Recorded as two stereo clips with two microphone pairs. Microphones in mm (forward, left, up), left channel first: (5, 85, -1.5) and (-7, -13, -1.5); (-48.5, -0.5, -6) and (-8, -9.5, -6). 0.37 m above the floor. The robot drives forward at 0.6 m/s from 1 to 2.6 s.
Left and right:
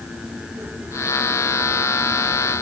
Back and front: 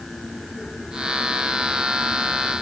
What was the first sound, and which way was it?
Only background noise.